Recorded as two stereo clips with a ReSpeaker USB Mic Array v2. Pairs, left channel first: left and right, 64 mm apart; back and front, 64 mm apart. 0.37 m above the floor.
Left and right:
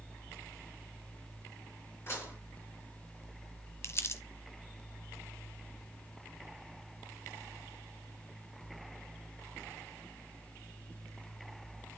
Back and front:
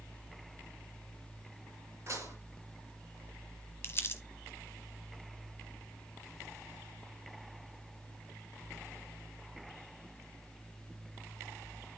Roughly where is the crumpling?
Behind left.